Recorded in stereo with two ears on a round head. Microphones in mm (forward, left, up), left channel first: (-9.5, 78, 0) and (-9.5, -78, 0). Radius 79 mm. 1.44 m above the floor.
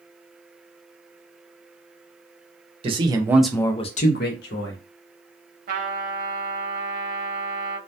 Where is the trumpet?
50° right (ahead or behind), 0.8 m.